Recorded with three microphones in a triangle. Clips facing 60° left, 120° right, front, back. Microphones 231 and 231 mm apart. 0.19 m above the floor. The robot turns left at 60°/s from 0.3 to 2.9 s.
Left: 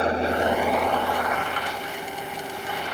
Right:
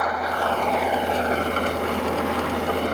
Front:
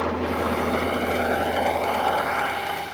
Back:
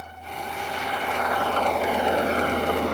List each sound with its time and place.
0.0 s an engine running: straight ahead; by 3.0 s 160° right